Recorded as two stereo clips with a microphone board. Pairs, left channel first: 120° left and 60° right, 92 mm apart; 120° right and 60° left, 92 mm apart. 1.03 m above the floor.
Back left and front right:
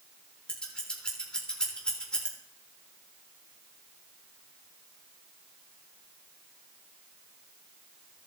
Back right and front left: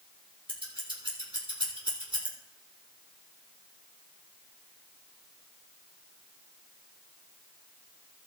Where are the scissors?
40° left, 3.5 m.